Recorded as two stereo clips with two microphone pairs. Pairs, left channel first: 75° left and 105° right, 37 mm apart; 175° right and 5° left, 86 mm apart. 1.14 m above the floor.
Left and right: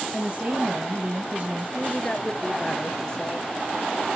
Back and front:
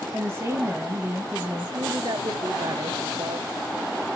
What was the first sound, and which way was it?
A woman speaking, 55° right.